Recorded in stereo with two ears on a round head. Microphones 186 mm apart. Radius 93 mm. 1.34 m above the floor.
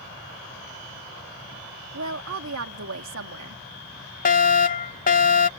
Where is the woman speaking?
75° right (ahead or behind).